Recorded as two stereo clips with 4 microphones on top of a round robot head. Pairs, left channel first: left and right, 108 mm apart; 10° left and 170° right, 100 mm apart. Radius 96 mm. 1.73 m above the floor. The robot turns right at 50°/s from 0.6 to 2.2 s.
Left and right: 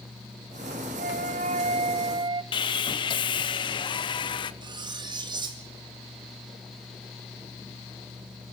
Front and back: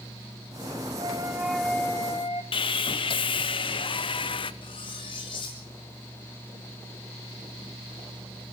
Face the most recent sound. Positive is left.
turn(degrees=-40)